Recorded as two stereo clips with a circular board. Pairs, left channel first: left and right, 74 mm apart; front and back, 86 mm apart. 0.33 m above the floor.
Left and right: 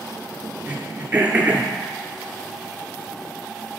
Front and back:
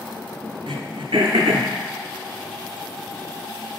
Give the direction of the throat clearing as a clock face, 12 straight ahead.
5 o'clock.